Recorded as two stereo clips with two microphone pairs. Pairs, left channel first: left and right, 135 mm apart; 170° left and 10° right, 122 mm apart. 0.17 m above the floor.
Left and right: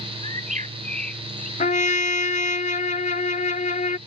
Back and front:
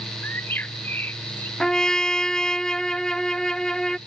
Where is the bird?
115° right.